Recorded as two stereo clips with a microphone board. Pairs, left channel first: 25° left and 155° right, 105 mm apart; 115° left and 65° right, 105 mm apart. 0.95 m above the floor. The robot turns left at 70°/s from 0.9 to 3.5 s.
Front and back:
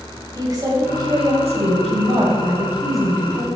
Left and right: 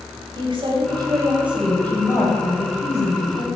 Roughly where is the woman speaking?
Right.